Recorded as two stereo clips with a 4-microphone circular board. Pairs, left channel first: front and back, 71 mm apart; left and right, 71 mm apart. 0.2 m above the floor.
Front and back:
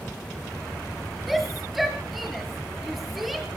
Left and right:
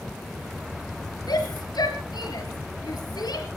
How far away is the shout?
About 3.5 m.